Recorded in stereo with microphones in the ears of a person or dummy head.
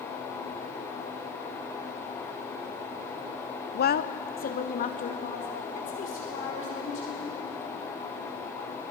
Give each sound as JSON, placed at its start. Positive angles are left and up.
{"t": 3.8, "sound": "a woman speaking", "side_deg": 50, "distance_m": 0.7}